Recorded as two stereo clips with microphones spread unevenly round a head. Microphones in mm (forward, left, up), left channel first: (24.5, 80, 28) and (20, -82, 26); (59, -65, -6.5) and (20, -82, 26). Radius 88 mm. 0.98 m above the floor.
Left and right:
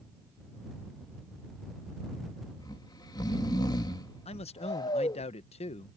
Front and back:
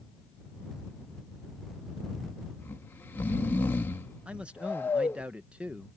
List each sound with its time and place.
2.6 s snoring: 25° left
4.2 s a man speaking: 90° left